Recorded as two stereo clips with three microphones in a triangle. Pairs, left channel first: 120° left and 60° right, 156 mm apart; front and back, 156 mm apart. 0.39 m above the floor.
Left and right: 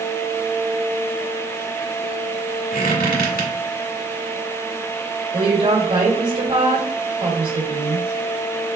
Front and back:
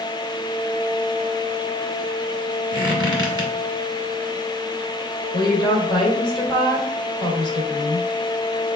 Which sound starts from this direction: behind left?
A squeak, at 2.7 s.